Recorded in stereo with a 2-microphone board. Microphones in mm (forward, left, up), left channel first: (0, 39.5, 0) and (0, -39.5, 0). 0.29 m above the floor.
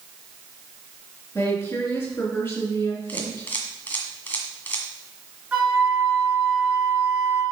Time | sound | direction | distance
1.4 | a woman speaking | 25° left (ahead or behind) | 4 m
3.1 | a camera shutter | 20° left (ahead or behind) | 2.0 m
5.5 | a flute | 15° right (ahead or behind) | 4 m